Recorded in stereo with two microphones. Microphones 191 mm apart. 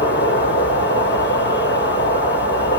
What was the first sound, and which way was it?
An insect, 80° left.